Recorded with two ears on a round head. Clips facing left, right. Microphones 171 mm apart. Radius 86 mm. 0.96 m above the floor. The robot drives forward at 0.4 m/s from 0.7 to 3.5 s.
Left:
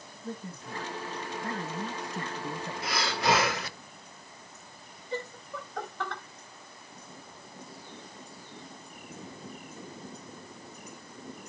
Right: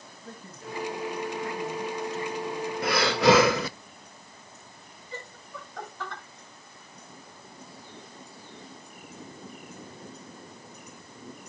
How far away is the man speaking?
About 1.6 m.